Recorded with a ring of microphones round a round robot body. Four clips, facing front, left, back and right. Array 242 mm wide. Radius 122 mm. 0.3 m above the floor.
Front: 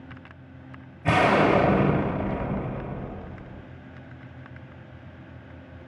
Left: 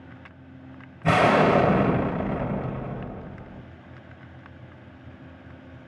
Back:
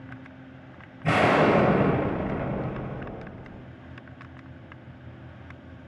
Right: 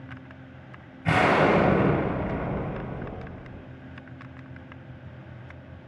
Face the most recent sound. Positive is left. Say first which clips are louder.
# left 2 dB, front 1 dB
turn(degrees=90)